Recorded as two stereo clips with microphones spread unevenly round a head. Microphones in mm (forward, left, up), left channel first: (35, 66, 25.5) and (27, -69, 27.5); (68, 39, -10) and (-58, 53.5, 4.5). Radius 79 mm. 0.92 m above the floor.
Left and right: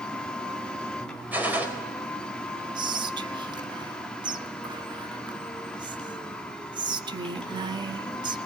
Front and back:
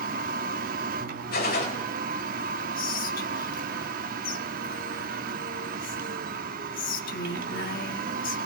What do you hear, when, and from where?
0.0 s a machine running: 170° left, 1.0 m
1.3 s a gunshot: 15° right, 4 m
2.8 s whispering: 35° right, 1.4 m